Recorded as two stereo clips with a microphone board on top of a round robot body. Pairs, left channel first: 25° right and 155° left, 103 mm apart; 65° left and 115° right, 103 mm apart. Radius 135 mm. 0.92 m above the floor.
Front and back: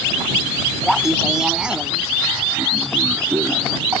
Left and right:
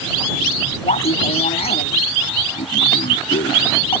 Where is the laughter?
70° left; by 4.0 s 95° left.